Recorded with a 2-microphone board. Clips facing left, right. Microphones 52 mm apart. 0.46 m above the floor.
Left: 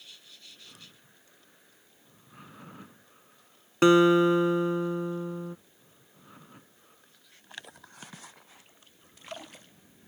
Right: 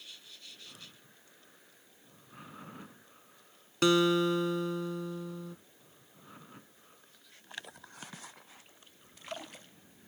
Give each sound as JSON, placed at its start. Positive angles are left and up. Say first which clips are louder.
{"t": 3.8, "sound": "a guitar", "louder": "left 7 dB", "side_deg": 25}